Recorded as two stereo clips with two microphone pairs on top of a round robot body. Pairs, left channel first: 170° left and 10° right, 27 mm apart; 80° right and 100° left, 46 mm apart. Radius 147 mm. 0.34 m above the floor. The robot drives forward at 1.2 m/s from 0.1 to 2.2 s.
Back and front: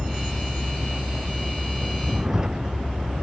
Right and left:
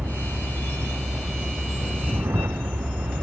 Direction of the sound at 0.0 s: 50° left.